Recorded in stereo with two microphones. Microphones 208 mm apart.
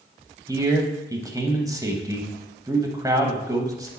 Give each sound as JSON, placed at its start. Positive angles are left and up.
{"t": 0.5, "sound": "a man speaking", "side_deg": -15, "distance_m": 1.0}